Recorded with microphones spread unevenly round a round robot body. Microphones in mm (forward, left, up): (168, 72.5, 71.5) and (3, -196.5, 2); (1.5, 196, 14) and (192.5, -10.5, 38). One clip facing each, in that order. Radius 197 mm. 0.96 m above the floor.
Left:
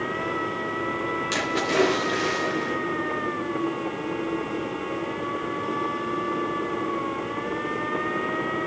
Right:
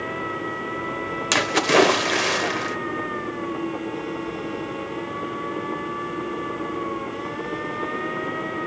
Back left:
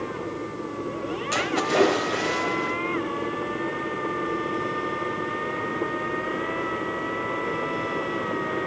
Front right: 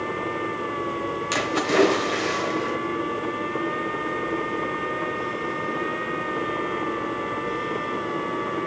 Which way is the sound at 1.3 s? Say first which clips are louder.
Right 6 dB, front right 2 dB; 110° right.